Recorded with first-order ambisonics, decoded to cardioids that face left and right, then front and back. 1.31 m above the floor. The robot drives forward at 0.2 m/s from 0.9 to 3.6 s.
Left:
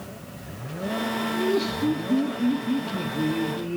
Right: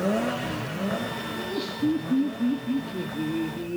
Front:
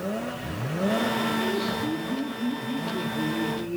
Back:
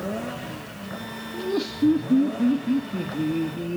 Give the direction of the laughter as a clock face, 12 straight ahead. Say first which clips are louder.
Left 6 dB, even; 7 o'clock.